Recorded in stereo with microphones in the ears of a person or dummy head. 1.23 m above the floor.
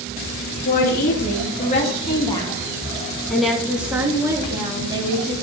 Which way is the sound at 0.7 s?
50° left (ahead or behind).